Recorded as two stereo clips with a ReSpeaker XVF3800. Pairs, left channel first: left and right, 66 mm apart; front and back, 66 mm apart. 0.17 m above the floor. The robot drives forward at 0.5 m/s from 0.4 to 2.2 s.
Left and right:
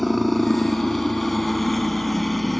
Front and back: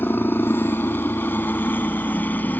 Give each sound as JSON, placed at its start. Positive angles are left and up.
{"t": 0.0, "sound": "a helicopter", "azimuth_deg": 5}